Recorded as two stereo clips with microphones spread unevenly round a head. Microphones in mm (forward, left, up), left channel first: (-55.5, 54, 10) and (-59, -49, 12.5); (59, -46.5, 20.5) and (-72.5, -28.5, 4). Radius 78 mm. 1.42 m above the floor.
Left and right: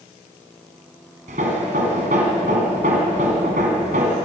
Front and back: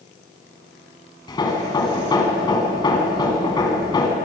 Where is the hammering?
65° right, 4 m.